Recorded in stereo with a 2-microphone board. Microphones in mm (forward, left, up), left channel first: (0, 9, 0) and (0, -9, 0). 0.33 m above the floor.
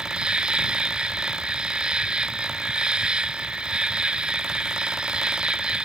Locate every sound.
0.0 s an insect: 55° right (ahead or behind)